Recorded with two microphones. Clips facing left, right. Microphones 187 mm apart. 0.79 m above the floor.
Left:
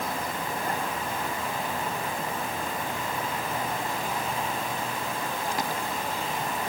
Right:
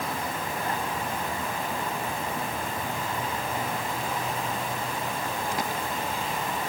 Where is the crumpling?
I don't hear crumpling.